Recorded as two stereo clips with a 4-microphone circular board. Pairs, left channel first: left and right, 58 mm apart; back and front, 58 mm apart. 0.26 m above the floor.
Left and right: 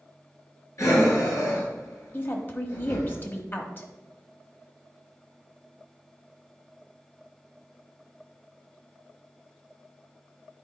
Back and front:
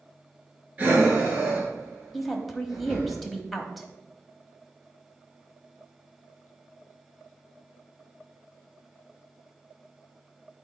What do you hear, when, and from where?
0.8 s breathing: 65° left, 3 m
2.1 s a woman speaking: 90° left, 1.1 m